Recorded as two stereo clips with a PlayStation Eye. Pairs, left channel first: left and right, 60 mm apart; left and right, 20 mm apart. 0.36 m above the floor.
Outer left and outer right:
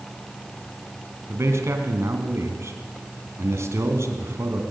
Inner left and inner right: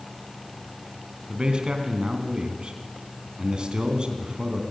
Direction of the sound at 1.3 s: 50° right (ahead or behind).